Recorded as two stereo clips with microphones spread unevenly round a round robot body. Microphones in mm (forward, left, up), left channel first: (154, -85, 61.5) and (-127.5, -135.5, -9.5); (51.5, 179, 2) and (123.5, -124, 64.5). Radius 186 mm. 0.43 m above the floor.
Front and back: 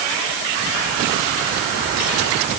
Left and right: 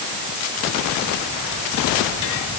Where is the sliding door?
I don't hear a sliding door.